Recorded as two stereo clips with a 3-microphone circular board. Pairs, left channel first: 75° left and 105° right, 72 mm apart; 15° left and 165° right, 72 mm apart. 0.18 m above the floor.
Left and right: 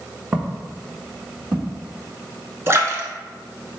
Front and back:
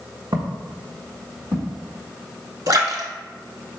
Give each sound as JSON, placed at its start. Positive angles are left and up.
{"t": 0.3, "sound": "footsteps", "azimuth_deg": -170, "distance_m": 0.9}
{"t": 2.7, "sound": "a splash", "azimuth_deg": -150, "distance_m": 0.7}